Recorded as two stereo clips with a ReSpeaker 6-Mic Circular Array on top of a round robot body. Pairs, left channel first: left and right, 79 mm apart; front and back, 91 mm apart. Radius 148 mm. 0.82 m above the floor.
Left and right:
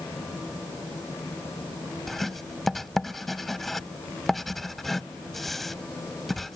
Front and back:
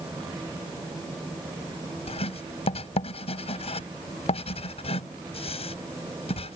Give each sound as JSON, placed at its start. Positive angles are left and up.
{"t": 2.1, "sound": "writing", "azimuth_deg": 5}